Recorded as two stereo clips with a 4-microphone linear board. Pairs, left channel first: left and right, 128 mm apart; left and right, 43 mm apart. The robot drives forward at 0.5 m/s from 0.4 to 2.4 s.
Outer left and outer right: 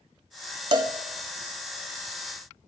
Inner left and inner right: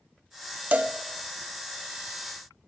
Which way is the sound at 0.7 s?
35° right (ahead or behind).